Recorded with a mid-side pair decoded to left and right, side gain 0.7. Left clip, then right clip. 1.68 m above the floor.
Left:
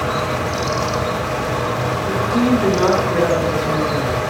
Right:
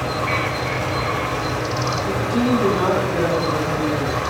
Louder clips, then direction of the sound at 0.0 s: Left 1 dB; 35° left.